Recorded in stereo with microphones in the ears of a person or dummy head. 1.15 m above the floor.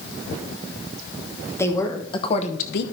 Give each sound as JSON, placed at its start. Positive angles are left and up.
{"t": 1.6, "sound": "a woman speaking", "side_deg": 10, "distance_m": 1.5}